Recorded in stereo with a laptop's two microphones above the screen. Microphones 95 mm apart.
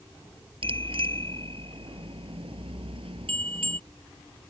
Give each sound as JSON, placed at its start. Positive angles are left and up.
{"t": 0.6, "sound": "a bicycle bell", "side_deg": -65}